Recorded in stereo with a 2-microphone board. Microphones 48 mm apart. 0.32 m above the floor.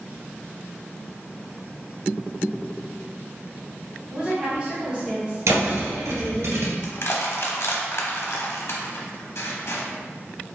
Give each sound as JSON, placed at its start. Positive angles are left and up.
{"t": 4.1, "sound": "a woman speaking", "side_deg": -25, "distance_m": 1.6}
{"t": 5.5, "sound": "a thud", "side_deg": -80, "distance_m": 1.6}
{"t": 6.8, "sound": "crushing", "side_deg": 65, "distance_m": 0.8}